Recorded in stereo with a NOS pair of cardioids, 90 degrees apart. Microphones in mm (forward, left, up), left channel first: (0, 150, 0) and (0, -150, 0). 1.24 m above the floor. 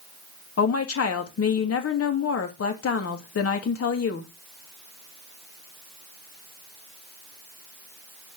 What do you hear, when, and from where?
0.6 s a woman speaking: 50° left, 2.5 m